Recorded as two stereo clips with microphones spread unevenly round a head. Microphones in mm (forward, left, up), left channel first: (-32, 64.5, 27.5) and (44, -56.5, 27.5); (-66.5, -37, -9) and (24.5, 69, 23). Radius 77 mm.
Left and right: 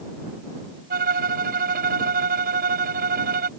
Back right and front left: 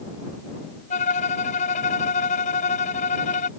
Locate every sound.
0.9 s a violin: 85° right